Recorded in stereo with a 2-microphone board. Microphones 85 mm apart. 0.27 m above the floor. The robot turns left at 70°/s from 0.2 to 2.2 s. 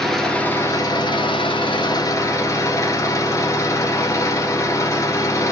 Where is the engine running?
175° left, 1.3 m; by 5.5 s 35° left, 1.3 m.